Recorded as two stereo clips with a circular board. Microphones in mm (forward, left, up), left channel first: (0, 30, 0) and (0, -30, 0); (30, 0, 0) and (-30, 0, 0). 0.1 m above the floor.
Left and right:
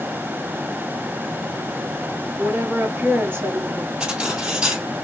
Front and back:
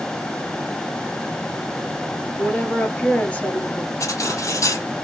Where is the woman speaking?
55° right, 1.4 m.